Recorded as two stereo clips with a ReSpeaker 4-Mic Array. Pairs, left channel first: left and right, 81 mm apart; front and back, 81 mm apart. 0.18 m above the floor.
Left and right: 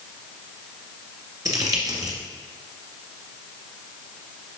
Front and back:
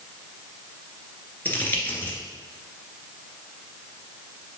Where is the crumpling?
60° right, 1.9 m.